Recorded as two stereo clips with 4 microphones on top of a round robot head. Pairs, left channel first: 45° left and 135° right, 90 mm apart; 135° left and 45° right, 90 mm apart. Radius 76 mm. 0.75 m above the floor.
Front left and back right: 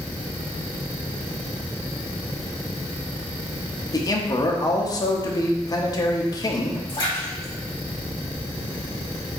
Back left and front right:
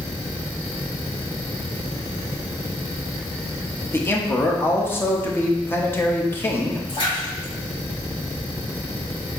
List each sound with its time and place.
3.9 s a man speaking: 75° left, 0.9 m
6.9 s a splash: 95° left, 2.5 m